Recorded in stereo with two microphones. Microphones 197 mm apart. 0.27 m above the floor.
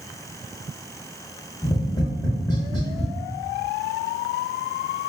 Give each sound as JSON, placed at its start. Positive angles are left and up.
{"t": 1.6, "sound": "tapping", "side_deg": 20, "distance_m": 1.1}